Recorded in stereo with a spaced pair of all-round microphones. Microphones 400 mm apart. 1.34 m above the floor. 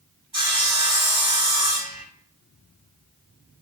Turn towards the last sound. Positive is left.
turn(degrees=-50)  # may be behind; listen again after turning